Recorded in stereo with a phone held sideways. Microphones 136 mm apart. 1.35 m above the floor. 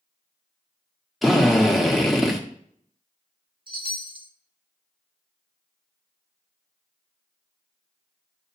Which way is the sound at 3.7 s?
40° right (ahead or behind).